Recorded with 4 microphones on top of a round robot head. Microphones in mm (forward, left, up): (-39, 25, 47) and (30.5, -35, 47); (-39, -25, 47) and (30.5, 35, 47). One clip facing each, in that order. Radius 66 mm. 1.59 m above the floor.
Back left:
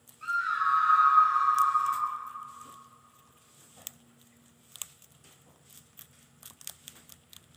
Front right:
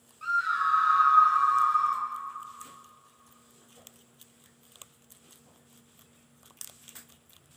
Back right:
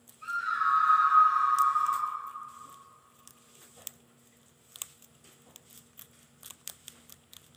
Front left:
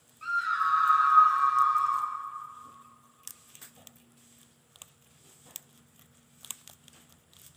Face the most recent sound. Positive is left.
turn(degrees=5)